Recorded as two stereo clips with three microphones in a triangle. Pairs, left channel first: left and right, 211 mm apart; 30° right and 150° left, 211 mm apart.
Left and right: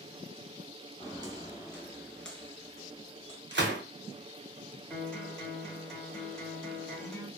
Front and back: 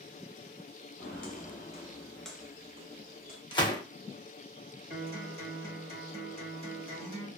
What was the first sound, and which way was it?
Footsteps, 25° right.